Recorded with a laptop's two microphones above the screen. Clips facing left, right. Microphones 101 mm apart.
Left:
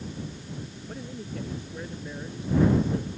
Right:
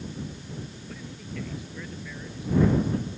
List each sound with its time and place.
0.9 s a man speaking: 35° left (ahead or behind); by 3.1 s 30° left (ahead or behind)